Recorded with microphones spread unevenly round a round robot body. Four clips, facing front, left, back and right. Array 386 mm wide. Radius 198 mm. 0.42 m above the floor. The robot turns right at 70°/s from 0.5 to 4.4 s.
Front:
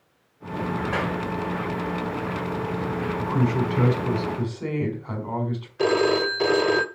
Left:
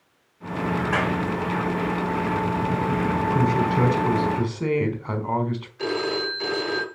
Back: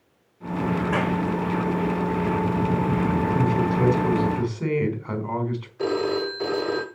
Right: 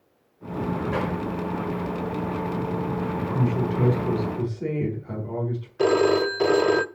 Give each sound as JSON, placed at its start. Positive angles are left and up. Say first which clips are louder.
{"t": 0.9, "sound": "a clap", "louder": "left 4 dB, back 2 dB", "azimuth_deg": 160, "distance_m": 5.0}
{"t": 3.2, "sound": "a man speaking", "louder": "left 3 dB, back 2 dB", "azimuth_deg": 15, "distance_m": 4.5}
{"t": 5.8, "sound": "a phone ringing", "louder": "right 8 dB, front 4 dB", "azimuth_deg": -50, "distance_m": 1.3}